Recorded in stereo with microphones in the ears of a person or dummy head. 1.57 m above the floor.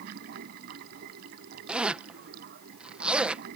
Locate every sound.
0.0 s running water: 60° right (ahead or behind)
1.7 s a zipper: 5° right (ahead or behind)